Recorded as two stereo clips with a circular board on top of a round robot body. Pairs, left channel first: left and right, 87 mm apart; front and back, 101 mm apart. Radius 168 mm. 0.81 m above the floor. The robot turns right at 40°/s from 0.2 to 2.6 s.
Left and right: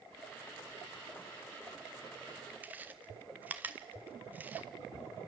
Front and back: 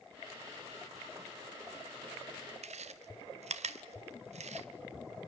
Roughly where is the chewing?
Behind.